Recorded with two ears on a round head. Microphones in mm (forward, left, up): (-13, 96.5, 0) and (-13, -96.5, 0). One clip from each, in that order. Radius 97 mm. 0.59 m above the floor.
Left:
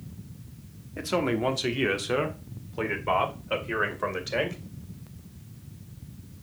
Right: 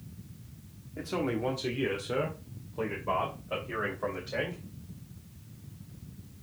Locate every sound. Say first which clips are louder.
1.0 s a man speaking: left 5 dB; 40° left (ahead or behind), 1.1 m; by 4.6 s 70° left (ahead or behind), 3 m